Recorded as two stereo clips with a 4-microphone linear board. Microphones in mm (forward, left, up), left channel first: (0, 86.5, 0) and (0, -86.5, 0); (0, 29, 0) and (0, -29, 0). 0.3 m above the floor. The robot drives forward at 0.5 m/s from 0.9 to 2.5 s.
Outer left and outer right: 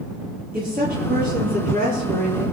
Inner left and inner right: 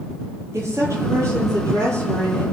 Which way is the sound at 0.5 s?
55° right (ahead or behind).